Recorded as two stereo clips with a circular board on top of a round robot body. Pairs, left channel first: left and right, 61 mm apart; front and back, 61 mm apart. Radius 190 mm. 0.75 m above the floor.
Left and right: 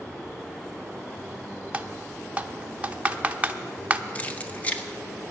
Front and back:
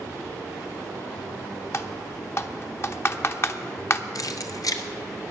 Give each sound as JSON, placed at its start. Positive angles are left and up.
{"t": 1.7, "sound": "typing on a keyboard", "azimuth_deg": -30, "distance_m": 1.1}
{"t": 4.2, "sound": "keys jangling", "azimuth_deg": 20, "distance_m": 1.1}